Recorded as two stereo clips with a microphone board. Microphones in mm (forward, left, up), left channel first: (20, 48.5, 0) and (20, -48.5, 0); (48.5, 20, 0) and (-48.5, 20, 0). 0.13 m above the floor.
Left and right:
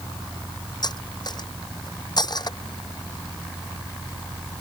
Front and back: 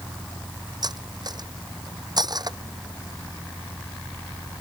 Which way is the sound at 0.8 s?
135° left.